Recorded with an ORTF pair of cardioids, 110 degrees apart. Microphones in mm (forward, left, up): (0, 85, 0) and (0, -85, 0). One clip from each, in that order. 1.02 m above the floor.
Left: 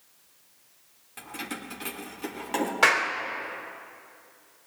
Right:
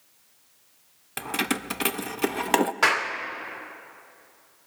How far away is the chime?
No chime in this recording.